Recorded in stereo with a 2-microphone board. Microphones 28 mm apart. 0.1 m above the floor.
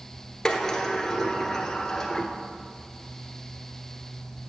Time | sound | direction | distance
0.5 | a sliding door | 15° left (ahead or behind) | 0.9 m